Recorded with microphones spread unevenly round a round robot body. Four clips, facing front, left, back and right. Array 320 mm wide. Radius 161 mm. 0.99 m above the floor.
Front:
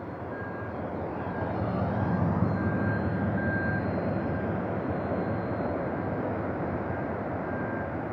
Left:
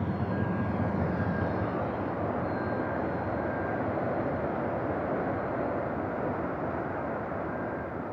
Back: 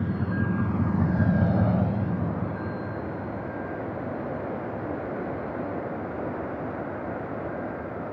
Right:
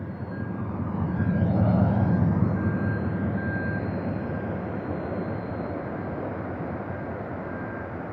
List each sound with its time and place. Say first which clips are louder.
0.0 s a vehicle: left 4 dB, back 7 dB; 165° left; by 8.1 s 45° right